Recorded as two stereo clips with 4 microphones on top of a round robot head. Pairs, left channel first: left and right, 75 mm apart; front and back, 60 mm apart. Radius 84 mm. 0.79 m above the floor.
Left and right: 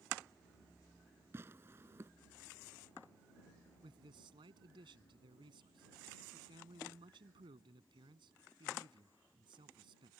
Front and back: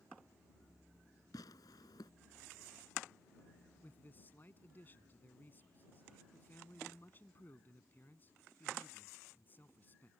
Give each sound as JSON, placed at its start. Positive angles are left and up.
{"t": 1.3, "sound": "tearing paper", "azimuth_deg": -25}
{"t": 3.8, "sound": "a man speaking", "azimuth_deg": -65}